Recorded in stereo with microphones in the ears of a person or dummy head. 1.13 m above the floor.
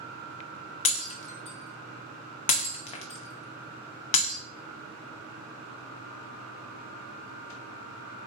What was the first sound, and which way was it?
Breaking glass, 35° left (ahead or behind).